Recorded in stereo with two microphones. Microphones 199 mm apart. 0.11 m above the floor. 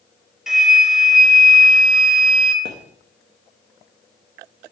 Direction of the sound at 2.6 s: 80° right.